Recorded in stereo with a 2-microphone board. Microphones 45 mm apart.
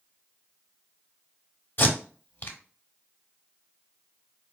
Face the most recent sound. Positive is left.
turn(degrees=50)  # may be behind; listen again after turning